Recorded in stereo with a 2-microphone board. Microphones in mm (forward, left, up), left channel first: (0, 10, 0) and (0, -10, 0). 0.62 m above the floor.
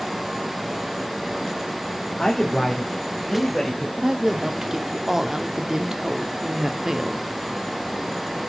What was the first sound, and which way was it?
A man speaking, 40° left (ahead or behind).